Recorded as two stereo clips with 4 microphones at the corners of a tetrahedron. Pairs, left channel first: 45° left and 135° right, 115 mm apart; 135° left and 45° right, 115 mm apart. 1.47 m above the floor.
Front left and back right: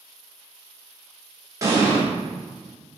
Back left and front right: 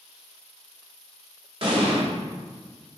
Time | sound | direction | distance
1.6 | an explosion | 75° right | 2 m